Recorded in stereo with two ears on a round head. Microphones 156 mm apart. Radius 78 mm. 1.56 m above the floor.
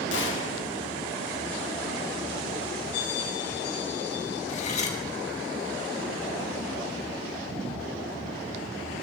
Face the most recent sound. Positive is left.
turn(degrees=40)  # may be behind; listen again after turning